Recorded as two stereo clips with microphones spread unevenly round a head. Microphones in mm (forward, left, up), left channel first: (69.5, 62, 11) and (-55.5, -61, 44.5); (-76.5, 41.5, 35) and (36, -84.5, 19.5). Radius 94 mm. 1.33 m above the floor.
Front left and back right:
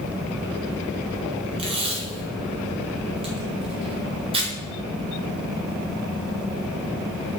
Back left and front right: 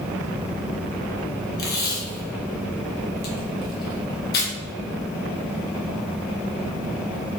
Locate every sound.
1.6 s tape being pulled: 160° left, 1.5 m